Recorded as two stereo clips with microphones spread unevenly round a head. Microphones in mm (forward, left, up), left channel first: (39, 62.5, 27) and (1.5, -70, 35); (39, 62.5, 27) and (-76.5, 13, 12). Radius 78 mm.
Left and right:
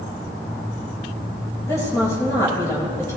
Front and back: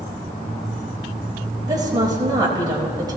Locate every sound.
1.7 s a woman speaking: 145° left, 6 m